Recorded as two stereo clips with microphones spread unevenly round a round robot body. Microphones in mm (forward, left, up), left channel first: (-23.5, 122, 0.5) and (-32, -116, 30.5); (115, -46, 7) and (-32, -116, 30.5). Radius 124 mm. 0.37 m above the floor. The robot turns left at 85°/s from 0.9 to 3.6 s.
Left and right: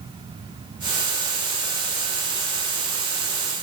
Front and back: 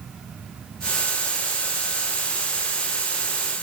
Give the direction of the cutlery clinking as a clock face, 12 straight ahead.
No cutlery clinking in this recording.